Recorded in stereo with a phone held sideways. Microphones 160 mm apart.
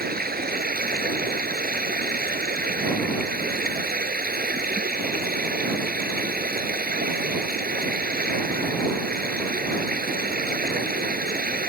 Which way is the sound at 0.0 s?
70° right (ahead or behind).